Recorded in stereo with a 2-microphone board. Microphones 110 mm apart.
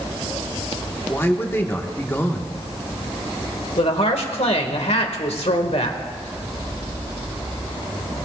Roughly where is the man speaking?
Left.